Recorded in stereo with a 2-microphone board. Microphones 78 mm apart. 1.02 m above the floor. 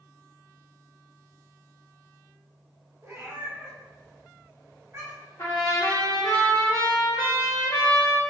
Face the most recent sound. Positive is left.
turn(degrees=45)  # may be behind; listen again after turning